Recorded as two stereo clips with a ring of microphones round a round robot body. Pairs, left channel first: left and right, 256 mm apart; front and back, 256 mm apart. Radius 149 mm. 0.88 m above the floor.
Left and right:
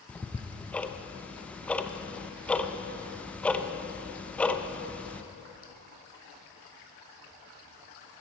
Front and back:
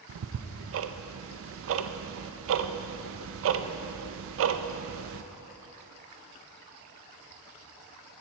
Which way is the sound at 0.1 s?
175° left.